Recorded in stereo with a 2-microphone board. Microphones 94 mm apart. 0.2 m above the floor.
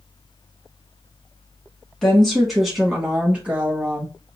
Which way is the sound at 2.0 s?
5° left (ahead or behind).